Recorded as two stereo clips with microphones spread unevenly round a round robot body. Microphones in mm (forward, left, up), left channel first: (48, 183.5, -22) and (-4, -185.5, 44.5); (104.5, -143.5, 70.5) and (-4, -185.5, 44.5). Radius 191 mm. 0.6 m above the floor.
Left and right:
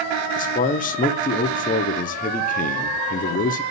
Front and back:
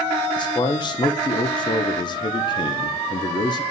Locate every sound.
0.4 s a man speaking: 60° left, 0.7 m